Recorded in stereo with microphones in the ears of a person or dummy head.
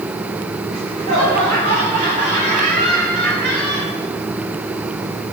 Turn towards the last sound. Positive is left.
turn(degrees=-60)  # may be behind; listen again after turning